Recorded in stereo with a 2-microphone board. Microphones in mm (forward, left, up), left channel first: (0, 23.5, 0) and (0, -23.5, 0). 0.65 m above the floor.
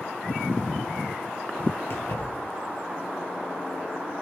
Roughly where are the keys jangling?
Left.